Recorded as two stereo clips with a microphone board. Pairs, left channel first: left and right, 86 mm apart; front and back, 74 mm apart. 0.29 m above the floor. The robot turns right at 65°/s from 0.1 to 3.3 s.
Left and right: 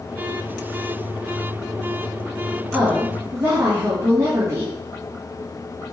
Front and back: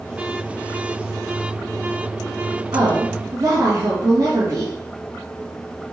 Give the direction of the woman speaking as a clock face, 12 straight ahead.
6 o'clock.